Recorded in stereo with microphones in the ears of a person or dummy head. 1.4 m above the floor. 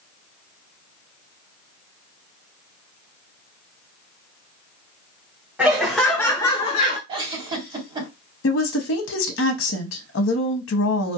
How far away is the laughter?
About 1.1 m.